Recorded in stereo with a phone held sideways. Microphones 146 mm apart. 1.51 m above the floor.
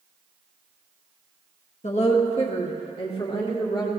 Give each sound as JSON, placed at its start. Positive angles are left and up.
{"t": 1.8, "sound": "a woman speaking", "side_deg": 50, "distance_m": 1.7}